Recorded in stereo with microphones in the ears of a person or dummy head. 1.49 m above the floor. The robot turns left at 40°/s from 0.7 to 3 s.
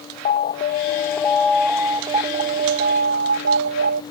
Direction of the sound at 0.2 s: 40° left.